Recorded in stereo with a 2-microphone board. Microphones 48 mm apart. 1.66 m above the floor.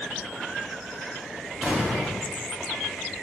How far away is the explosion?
About 0.8 m.